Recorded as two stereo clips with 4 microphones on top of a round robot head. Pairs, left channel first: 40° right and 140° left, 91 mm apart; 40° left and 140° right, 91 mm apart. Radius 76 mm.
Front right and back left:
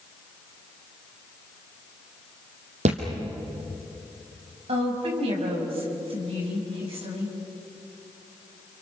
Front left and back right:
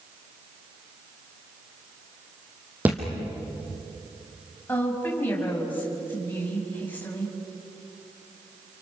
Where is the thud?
145° left, 3 m.